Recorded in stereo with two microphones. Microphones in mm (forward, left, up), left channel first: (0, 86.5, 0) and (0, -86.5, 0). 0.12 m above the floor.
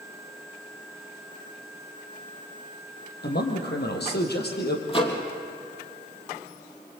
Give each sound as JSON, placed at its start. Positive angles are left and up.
{"t": 3.2, "sound": "a man speaking", "side_deg": 70, "distance_m": 4.5}
{"t": 4.9, "sound": "a microwave", "side_deg": 30, "distance_m": 3.0}